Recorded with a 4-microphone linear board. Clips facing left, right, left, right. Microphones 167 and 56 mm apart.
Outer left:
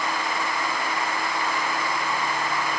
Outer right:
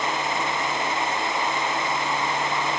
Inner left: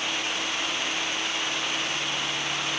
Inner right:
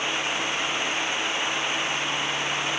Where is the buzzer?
No buzzer in this recording.